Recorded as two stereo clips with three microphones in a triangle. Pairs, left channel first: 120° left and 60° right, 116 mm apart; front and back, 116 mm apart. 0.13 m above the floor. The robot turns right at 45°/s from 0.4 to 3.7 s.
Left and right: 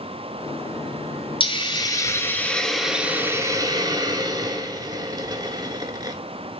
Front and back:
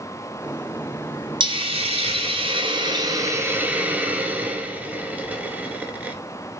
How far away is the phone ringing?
No phone ringing in this recording.